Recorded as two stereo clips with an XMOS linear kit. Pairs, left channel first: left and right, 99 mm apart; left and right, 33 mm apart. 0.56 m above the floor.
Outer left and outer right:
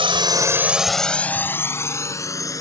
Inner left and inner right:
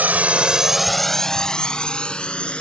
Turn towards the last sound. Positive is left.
turn(degrees=35)  # may be behind; listen again after turning